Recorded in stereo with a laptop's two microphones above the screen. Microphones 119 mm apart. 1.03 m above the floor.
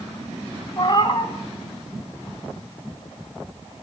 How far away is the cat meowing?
About 1.7 m.